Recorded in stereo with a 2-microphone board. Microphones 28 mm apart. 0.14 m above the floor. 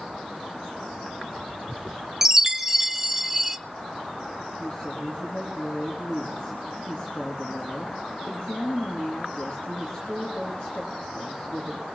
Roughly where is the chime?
Centre.